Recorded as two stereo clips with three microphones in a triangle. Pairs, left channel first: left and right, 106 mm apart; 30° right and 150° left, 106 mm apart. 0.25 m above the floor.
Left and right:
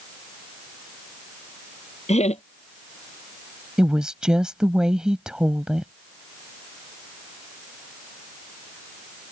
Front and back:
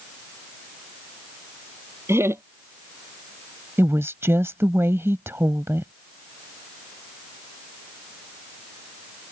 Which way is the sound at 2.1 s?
85° left.